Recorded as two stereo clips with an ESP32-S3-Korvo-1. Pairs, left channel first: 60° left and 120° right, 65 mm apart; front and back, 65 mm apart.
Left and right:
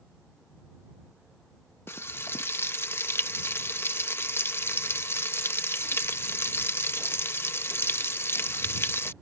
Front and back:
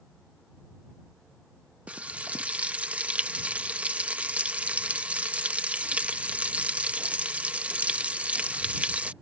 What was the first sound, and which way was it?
Frying, 110° left.